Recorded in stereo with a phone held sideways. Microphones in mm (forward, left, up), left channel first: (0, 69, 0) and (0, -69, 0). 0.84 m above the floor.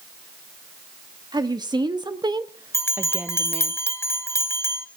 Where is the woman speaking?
30° right (ahead or behind), 1.8 m; by 3.7 s 5° left (ahead or behind), 1.3 m.